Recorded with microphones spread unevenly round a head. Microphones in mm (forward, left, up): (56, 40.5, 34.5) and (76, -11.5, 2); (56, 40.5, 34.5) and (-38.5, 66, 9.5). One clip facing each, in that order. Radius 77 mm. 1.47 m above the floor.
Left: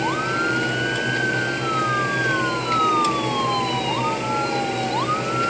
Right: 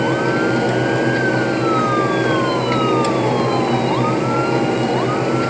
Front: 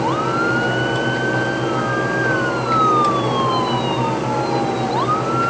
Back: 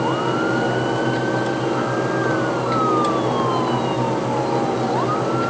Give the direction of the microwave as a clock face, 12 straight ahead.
I don't hear a microwave.